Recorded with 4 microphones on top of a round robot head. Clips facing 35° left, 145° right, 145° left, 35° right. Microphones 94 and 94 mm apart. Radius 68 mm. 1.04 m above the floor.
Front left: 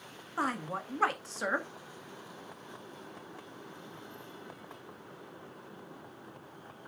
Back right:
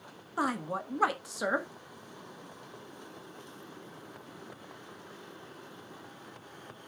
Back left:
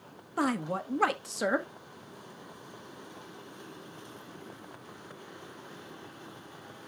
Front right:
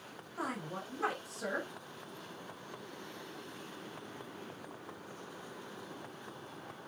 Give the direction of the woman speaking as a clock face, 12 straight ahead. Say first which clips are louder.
Back right 2 dB, back left 10 dB; 7 o'clock.